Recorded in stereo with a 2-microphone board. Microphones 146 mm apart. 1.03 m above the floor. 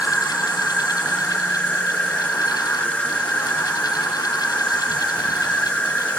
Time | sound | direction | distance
0.0 | an insect | 10° left (ahead or behind) | 1.0 m